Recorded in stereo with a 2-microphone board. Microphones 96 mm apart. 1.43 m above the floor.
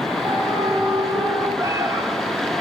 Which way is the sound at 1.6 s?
35° right (ahead or behind).